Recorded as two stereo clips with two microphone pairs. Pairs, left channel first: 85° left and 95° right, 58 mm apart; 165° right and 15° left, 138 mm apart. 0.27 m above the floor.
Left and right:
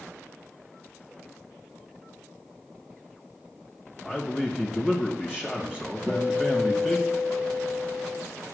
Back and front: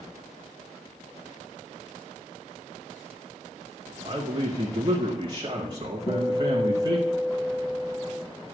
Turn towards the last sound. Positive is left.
turn(degrees=-135)